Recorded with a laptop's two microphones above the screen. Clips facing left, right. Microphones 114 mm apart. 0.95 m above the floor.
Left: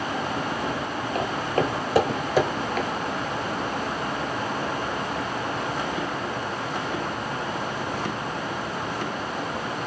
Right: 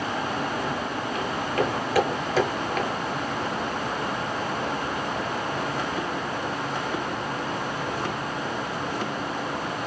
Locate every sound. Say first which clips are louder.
1.1 s footsteps: left 2 dB; 40° left (ahead or behind), 1.2 m; by 2.9 s centre (ahead or behind), 1.0 m